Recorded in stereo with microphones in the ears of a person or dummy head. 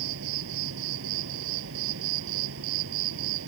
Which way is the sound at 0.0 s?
75° right (ahead or behind).